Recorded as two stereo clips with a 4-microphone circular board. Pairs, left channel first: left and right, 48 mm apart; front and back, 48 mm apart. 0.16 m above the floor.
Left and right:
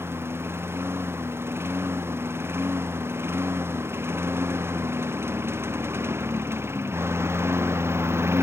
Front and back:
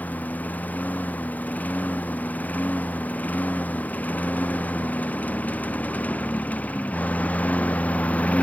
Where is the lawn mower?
55° right; by 8.4 s 60° right.